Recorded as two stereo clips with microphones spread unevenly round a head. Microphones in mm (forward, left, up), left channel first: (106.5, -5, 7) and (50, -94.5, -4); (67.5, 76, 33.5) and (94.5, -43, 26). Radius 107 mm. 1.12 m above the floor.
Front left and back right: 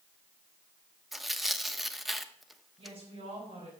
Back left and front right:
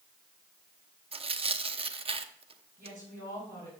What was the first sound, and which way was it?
Tearing paper, 35° right.